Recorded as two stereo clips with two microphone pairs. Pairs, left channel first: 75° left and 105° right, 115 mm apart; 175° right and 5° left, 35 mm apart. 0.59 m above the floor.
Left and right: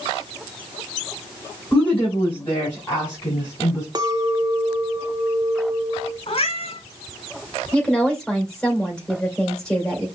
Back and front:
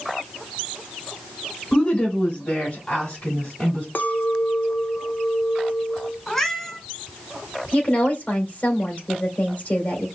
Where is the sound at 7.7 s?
155° left, 2.5 m.